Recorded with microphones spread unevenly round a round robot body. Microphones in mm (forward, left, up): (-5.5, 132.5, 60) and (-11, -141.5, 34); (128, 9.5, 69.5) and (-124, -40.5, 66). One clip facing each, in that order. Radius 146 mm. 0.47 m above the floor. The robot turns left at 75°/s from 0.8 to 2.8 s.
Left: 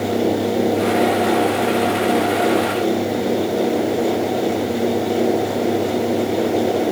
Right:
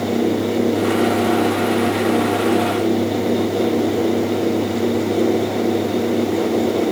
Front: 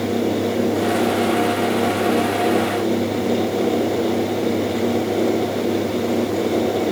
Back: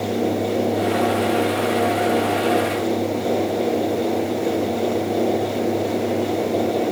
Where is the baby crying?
I don't hear a baby crying.